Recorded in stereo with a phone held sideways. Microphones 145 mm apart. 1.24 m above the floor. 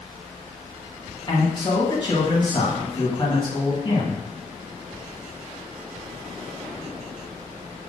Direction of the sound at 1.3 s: 35° left (ahead or behind).